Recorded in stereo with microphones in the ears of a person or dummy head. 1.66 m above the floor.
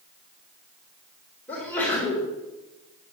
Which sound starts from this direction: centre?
A sneeze, at 1.5 s.